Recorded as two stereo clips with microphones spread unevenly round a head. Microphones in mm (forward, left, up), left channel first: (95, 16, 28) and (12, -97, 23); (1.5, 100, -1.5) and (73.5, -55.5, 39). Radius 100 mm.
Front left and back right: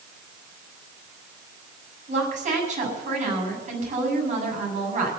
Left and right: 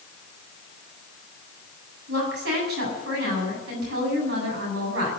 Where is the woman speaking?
95° right, 7.5 m.